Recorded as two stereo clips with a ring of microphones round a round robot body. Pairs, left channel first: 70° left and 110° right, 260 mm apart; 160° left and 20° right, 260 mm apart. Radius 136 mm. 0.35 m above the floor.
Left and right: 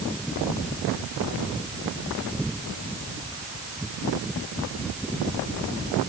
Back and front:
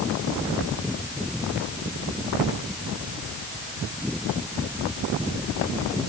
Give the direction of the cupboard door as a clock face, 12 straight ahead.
I don't hear a cupboard door.